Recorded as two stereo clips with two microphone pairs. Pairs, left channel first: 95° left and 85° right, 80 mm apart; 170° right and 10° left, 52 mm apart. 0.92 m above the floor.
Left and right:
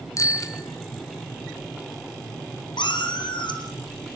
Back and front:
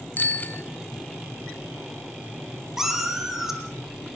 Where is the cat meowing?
95° left, 4.5 m.